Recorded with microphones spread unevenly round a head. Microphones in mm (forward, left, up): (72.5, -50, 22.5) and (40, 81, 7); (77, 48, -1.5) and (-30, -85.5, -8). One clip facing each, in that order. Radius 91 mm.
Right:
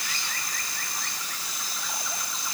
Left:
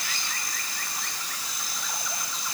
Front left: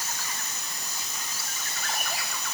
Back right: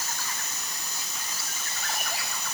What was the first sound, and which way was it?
Only background noise.